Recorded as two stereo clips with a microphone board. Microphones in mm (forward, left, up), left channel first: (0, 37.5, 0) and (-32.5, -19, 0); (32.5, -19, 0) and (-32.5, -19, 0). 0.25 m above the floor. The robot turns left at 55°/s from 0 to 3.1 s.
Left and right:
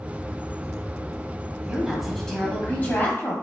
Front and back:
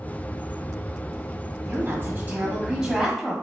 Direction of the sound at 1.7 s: 170° left.